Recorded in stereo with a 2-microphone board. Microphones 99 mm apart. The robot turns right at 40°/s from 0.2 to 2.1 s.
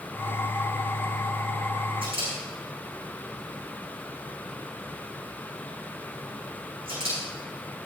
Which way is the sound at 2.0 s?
65° right (ahead or behind).